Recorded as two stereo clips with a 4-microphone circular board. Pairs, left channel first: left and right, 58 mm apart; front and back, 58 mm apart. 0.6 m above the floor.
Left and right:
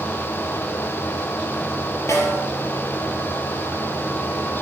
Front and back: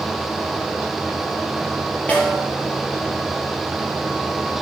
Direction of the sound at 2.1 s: 60° left.